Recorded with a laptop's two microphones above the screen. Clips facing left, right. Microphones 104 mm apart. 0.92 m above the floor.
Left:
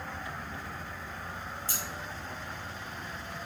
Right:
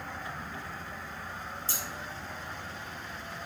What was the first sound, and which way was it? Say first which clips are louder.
Scissors: even; 30° right (ahead or behind).